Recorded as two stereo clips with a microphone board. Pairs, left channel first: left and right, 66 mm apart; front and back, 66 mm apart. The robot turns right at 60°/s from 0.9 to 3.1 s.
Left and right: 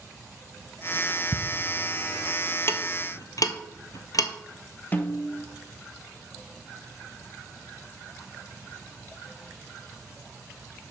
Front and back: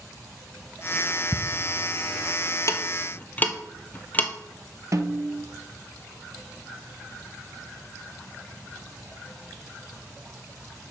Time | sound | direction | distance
1.3 | ticking | 30° left | 0.7 m
2.7 | ticking | 40° left | 0.8 m
4.9 | a snare drum | 150° left | 0.7 m